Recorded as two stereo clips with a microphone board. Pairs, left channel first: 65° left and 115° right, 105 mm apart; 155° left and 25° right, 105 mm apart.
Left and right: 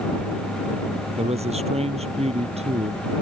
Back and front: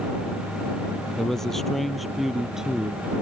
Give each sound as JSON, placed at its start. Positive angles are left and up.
{"t": 1.2, "sound": "a man speaking", "azimuth_deg": -115}